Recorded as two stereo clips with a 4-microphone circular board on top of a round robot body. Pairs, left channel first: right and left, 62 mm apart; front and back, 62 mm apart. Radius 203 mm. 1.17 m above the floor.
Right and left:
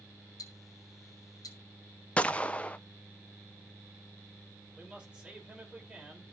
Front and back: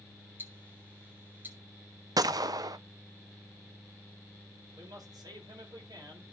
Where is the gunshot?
160° right, 0.5 m.